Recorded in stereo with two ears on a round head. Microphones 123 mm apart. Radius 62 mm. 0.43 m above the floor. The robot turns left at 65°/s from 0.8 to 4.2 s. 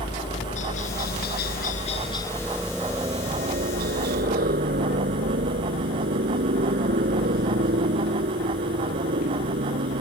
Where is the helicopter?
120° left; by 10.0 s 100° right.